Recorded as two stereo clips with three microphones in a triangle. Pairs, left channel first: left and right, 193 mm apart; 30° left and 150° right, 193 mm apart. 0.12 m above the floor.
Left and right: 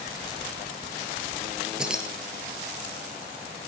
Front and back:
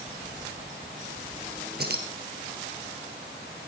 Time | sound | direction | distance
1.8 | keys jangling | 175° right | 2 m